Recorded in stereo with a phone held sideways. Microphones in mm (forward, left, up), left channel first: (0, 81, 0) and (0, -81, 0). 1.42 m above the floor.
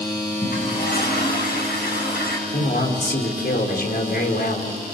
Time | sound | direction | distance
0.4 | a toilet flushing | 85° left | 7 m
2.5 | a man speaking | 75° left (ahead or behind) | 5 m